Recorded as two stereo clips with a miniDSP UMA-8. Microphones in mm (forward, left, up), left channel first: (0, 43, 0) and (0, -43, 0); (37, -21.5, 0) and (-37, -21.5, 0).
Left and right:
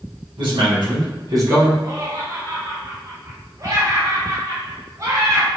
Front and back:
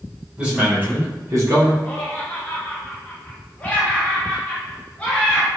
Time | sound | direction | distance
0.4 | a man speaking | 100° right | 1.4 m
1.8 | laughter | 65° right | 0.8 m